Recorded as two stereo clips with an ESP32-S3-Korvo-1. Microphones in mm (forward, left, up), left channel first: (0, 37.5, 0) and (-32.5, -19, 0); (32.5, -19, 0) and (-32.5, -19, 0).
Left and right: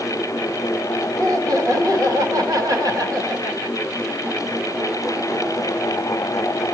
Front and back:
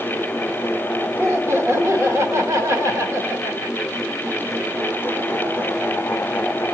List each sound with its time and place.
1.2 s laughter: 140° right, 1.5 m